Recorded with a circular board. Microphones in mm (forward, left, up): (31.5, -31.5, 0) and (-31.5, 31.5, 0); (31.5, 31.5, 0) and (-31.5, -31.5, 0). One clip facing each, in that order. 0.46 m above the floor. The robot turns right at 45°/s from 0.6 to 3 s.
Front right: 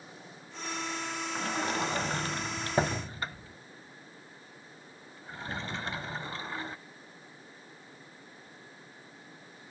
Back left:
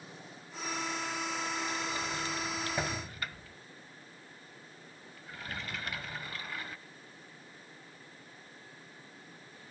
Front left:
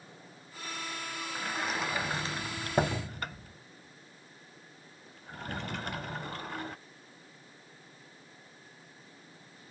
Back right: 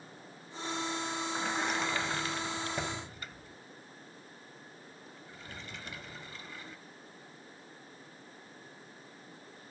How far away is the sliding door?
About 0.5 m.